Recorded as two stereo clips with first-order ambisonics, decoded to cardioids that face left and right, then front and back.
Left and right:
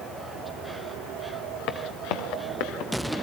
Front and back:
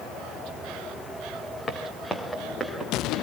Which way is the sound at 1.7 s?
70° left.